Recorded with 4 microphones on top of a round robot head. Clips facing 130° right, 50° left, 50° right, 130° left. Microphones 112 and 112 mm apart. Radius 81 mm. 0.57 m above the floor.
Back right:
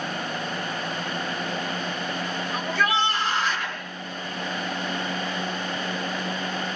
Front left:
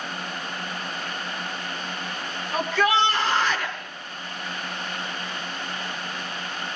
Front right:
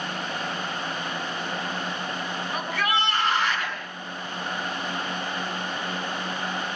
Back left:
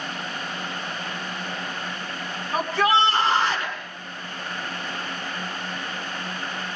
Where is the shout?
65° left, 6.5 m.